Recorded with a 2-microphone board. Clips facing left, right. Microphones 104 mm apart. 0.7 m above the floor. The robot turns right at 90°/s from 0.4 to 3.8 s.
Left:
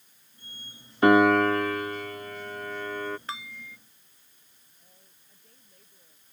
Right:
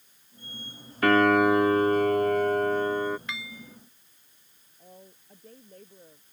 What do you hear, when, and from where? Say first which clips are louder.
1.0 s a piano: left 1 dB; 155° left; by 3.2 s 10° right
3.3 s dishes clattering: left 1 dB; 35° left; by 3.8 s 80° left
4.8 s a woman speaking: right 15 dB; 50° right (ahead or behind)